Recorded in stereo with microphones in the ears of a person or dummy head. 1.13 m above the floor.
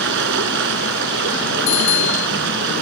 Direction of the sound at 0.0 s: 75° right (ahead or behind).